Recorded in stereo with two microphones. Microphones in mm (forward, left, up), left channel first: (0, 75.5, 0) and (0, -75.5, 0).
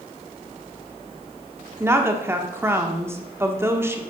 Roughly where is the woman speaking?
Centre.